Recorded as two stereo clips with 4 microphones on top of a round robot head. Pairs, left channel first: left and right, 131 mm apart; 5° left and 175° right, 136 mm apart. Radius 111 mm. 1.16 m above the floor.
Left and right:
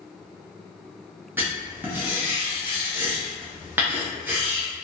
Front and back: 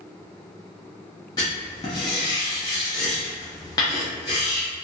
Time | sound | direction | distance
1.4 | writing | 35° right | 0.5 m